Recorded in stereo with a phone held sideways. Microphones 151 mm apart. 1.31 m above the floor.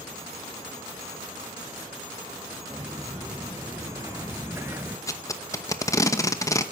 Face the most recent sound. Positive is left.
turn(degrees=20)  # may be behind; listen again after turning